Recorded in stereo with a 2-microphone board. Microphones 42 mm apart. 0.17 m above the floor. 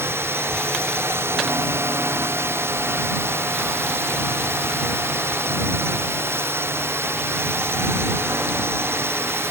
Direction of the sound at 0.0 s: 85° right.